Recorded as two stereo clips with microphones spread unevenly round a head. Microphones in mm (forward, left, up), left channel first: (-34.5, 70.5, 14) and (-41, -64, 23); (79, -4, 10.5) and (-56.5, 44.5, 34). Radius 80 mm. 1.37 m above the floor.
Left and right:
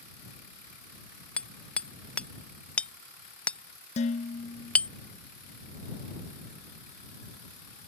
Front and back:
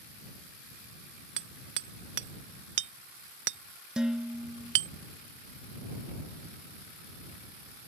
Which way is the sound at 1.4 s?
170° left.